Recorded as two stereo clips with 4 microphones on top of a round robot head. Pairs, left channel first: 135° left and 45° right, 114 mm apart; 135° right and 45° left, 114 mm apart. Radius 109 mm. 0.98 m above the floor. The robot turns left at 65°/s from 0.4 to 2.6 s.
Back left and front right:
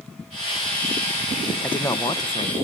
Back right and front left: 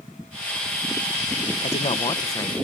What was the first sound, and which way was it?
A man speaking, 145° right.